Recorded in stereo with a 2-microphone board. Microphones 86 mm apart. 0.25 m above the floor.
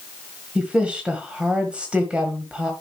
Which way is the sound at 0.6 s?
10° right (ahead or behind).